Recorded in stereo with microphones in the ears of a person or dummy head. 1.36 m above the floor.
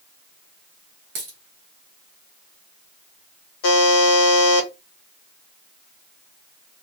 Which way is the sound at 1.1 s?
45° right (ahead or behind).